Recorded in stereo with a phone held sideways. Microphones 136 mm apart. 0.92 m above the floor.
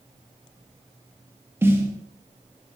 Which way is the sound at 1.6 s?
15° right (ahead or behind).